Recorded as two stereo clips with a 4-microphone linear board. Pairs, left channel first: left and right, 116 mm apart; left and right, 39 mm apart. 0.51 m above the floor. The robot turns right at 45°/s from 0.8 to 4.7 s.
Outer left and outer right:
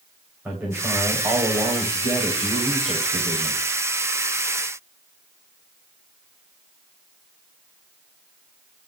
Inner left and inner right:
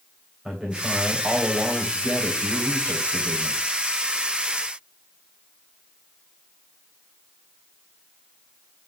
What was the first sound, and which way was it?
A man speaking, 160° right.